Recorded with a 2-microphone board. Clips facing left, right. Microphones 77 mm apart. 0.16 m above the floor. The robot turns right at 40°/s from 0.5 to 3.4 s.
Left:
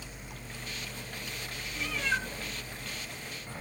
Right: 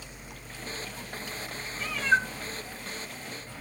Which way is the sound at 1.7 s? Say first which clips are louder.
Right 7 dB; 50° right (ahead or behind).